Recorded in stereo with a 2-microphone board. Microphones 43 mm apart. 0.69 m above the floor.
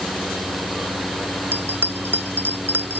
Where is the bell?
50° right (ahead or behind).